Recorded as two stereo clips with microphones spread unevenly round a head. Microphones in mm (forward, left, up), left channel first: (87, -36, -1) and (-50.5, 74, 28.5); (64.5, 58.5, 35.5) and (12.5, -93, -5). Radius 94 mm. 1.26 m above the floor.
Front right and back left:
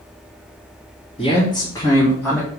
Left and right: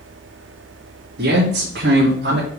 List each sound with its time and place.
1.2 s a man speaking: 100° right, 2.5 m; by 2.5 s 130° right, 1.8 m